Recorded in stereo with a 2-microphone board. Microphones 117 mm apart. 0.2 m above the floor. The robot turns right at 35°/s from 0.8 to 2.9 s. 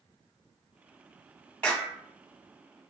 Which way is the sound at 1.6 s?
10° left (ahead or behind).